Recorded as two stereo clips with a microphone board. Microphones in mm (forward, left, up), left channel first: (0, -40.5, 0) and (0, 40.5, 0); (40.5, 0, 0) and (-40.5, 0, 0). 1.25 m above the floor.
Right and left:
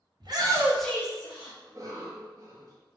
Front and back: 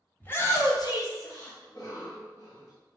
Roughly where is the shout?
Ahead left.